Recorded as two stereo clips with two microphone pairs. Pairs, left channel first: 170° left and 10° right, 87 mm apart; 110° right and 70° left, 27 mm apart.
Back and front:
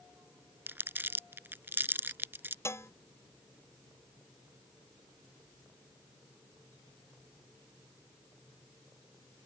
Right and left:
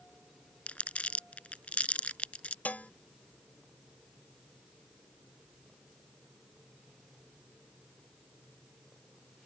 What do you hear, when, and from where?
0.7 s crumpling: 75° right
2.6 s dishes clattering: 130° right